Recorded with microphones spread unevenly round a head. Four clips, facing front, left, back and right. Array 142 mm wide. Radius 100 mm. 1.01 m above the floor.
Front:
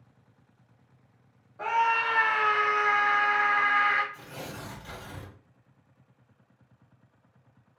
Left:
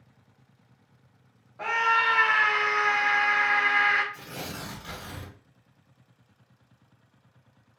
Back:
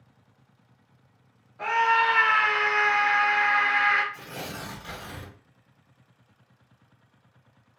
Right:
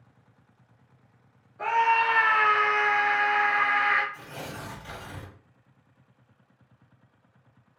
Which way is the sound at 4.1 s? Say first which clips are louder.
Even, back 3 dB; 170° left.